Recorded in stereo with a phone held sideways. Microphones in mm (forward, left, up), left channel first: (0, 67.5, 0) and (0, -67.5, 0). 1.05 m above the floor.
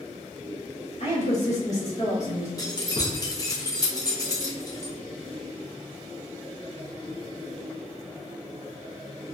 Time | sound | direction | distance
1.0 | a woman speaking | 60° left (ahead or behind) | 1.3 m
2.6 | keys jangling | 30° left (ahead or behind) | 0.6 m